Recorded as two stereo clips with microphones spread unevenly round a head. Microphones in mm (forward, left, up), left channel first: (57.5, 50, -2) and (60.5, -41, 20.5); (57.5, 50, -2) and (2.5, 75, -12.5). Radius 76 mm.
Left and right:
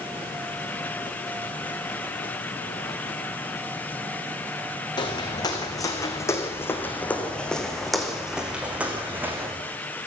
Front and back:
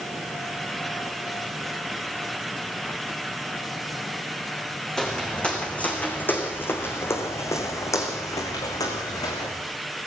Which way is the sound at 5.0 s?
50° left.